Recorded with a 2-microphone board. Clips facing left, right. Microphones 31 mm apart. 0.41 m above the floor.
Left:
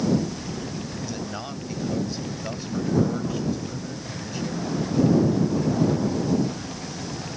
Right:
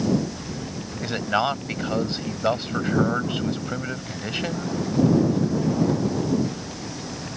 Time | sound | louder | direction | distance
1.0 | a man speaking | right 9 dB | 65° right (ahead or behind) | ?